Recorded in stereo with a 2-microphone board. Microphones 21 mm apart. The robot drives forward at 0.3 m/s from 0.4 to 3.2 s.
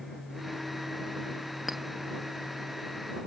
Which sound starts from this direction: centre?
A clink, at 1.7 s.